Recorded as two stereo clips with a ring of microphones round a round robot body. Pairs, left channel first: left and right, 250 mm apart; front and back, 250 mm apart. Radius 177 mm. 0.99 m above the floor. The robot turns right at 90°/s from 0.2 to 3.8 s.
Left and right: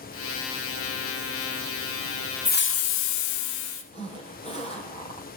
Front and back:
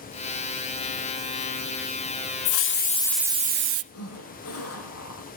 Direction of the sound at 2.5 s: 25° left.